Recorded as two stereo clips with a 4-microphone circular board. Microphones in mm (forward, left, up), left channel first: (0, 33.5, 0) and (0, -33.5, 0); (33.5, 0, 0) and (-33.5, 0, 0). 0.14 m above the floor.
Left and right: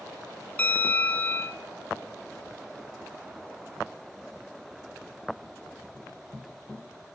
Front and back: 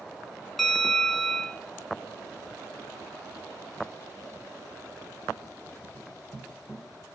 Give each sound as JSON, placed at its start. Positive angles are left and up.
{"t": 0.6, "sound": "a bell", "azimuth_deg": 85, "distance_m": 1.6}